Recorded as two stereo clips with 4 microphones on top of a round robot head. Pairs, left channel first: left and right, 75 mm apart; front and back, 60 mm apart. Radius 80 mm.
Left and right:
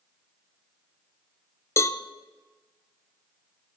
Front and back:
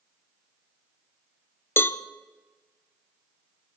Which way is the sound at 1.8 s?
40° left.